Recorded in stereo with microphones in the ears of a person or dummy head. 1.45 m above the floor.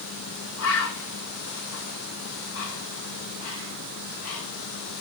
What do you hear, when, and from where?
0.6 s a bird: 80° left, 2.5 m